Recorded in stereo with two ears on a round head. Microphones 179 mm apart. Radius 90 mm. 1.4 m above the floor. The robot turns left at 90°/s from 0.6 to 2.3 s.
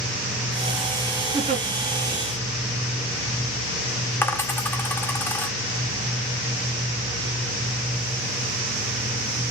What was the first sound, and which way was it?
A giggle, 25° right (ahead or behind).